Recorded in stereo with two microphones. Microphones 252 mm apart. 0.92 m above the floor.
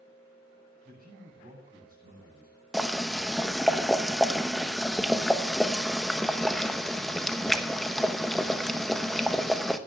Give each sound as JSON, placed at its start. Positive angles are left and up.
{"t": 0.8, "sound": "a man speaking", "side_deg": -35, "distance_m": 7.0}
{"t": 2.7, "sound": "boiling", "side_deg": 0, "distance_m": 0.9}